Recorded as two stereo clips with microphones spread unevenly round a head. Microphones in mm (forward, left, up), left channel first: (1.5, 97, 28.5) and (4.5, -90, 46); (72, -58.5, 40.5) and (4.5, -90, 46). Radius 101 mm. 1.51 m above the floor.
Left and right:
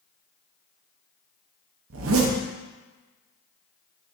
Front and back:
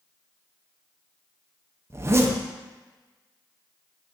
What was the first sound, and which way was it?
A zipper, 95° right.